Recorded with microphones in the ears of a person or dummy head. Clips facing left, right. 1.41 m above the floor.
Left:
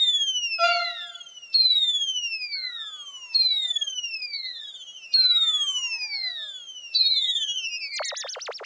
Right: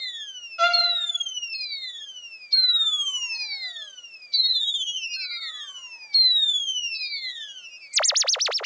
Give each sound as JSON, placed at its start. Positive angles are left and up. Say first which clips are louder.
{"t": 0.6, "sound": "a violin", "louder": "left 1 dB", "side_deg": -25, "distance_m": 5.5}